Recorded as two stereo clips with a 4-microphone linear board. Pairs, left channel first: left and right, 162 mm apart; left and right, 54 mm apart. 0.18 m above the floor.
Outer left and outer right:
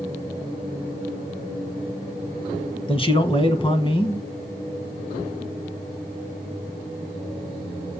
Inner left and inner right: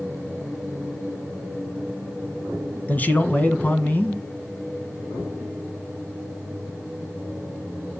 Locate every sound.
2.9 s a man speaking: 35° left (ahead or behind), 1.3 m